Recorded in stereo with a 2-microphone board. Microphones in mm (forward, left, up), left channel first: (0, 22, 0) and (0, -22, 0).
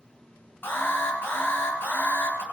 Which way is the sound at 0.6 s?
50° left (ahead or behind).